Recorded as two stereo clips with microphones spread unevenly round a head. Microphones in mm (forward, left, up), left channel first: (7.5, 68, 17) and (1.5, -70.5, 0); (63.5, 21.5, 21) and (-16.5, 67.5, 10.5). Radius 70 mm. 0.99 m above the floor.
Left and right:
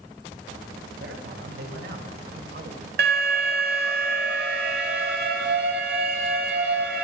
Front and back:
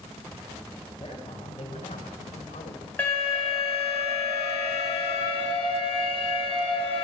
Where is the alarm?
110° right, 8 m.